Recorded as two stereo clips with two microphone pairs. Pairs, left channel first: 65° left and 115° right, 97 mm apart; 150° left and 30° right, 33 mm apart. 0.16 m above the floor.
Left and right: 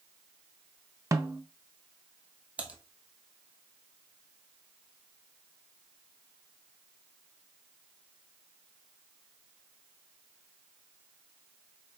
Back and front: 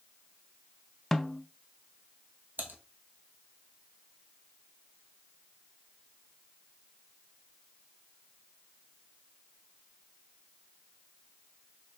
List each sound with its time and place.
1.1 s a snare drum: 140° right, 0.5 m
2.6 s typing on a keyboard: 40° right, 1.0 m